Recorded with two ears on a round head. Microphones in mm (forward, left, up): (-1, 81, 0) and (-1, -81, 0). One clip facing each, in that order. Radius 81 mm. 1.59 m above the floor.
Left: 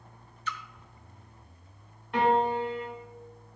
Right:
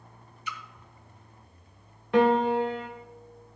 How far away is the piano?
About 1.6 m.